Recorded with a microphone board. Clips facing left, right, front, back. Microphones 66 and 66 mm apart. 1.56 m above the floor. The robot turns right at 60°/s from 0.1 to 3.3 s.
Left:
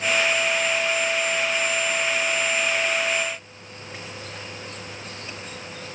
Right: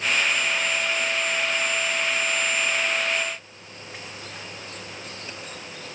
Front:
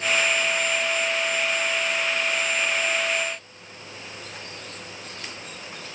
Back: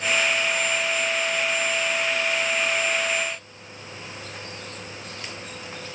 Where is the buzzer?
No buzzer in this recording.